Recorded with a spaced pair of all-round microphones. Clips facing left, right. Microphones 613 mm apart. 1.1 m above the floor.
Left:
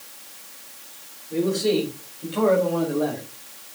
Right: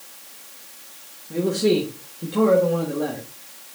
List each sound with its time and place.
1.3 s a man speaking: 70° right (ahead or behind), 2 m; by 3.2 s 35° right (ahead or behind), 2.5 m